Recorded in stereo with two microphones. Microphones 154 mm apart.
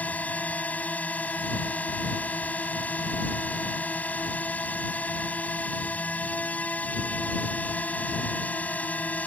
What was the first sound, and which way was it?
A drone, 10° left (ahead or behind).